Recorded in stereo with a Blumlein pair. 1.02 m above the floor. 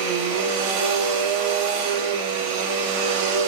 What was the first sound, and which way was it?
A machine running, 50° right.